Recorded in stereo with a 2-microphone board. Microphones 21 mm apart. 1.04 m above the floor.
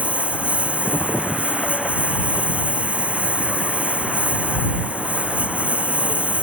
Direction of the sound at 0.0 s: 85° right.